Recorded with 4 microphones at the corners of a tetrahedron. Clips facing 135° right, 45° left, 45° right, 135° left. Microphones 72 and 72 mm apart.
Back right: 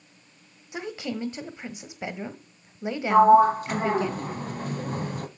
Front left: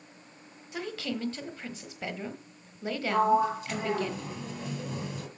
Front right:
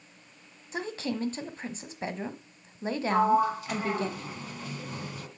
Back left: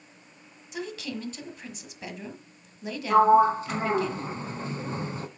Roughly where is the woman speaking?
Right.